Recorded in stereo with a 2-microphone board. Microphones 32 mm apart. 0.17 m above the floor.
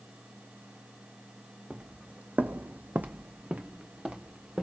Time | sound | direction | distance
1.7 | footsteps | 30° right (ahead or behind) | 0.8 m